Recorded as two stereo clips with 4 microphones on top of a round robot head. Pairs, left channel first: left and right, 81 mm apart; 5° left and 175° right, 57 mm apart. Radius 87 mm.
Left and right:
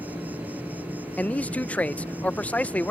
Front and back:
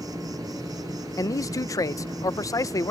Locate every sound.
0.0 s an insect: 160° right
1.2 s a man speaking: 15° left